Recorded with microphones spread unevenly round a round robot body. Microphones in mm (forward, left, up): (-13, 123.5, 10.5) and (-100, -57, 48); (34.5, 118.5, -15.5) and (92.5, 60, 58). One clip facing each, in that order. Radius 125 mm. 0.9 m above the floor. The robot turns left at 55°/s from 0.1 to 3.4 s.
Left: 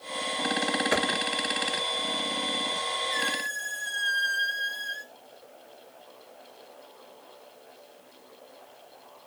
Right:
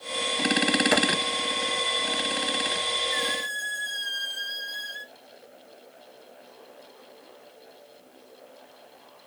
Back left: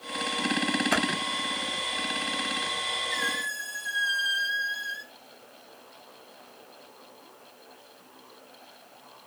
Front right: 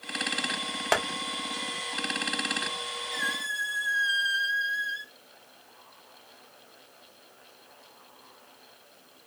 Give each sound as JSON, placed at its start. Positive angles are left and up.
{"t": 0.9, "sound": "tapping", "azimuth_deg": -60, "distance_m": 0.7}
{"t": 3.1, "sound": "a squeak", "azimuth_deg": -175, "distance_m": 1.3}